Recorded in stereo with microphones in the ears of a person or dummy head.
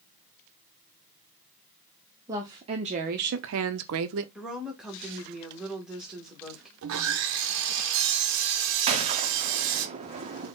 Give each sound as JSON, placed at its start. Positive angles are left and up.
{"t": 2.3, "sound": "a woman speaking", "side_deg": -15, "distance_m": 0.8}
{"t": 4.3, "sound": "a woman speaking", "side_deg": 0, "distance_m": 1.2}
{"t": 6.8, "sound": "sawing", "side_deg": -75, "distance_m": 0.6}
{"t": 8.9, "sound": "a gunshot", "side_deg": -30, "distance_m": 0.6}